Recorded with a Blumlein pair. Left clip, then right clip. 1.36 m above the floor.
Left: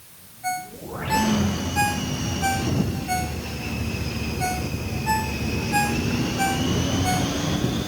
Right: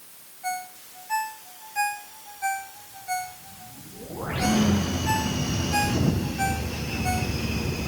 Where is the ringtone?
10° left.